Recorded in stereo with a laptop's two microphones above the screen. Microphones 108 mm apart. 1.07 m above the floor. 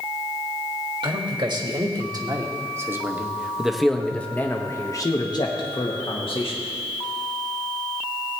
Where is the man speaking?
45° right (ahead or behind), 1.9 m; by 6.6 s 60° left (ahead or behind), 1.6 m.